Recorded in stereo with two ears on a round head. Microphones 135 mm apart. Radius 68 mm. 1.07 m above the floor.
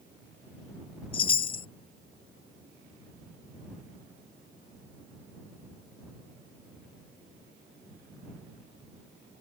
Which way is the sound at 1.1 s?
40° left (ahead or behind).